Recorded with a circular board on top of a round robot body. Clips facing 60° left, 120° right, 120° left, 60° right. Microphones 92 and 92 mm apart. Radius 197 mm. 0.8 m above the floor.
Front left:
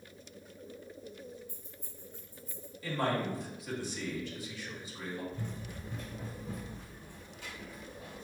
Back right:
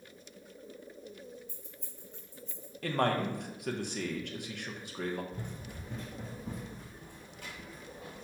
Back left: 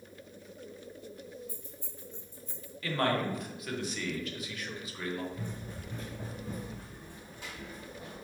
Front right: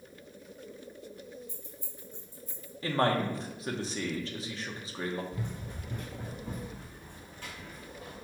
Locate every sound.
1.5 s keys jangling: 125° right, 0.9 m; by 2.7 s 145° right, 1.8 m
2.8 s a man speaking: 115° right, 1.0 m
5.3 s running footsteps: 75° right, 1.4 m; by 8.2 s straight behind, 2 m